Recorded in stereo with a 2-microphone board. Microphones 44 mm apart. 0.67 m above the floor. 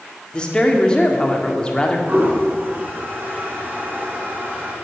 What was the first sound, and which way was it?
A woman speaking, 20° left (ahead or behind).